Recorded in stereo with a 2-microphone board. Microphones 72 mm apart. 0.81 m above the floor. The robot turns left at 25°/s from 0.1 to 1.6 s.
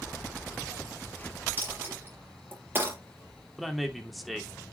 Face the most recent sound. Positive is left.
turn(degrees=0)  # may be behind; listen again after turning